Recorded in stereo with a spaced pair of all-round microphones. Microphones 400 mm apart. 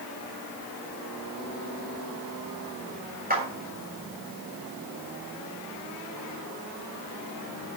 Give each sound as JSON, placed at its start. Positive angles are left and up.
{"t": 3.3, "sound": "a clap", "side_deg": -20, "distance_m": 6.5}